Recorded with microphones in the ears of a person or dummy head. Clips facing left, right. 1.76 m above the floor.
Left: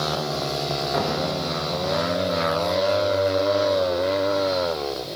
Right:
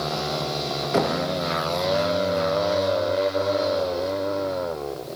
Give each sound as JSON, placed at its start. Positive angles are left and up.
{"t": 0.9, "sound": "knocking", "side_deg": -50, "distance_m": 1.2}